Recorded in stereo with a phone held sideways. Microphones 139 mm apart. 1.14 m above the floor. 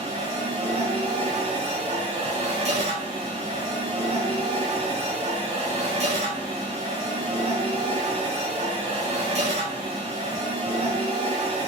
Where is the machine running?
55° right (ahead or behind), 1.0 m.